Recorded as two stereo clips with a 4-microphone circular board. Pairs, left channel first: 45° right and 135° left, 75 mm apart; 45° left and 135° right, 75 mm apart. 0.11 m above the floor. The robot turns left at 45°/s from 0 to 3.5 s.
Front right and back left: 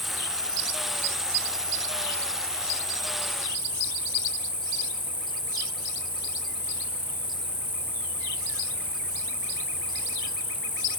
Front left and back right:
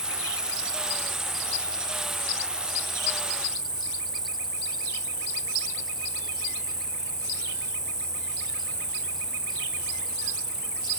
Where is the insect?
130° right, 2 m; by 11.0 s 70° left, 2 m.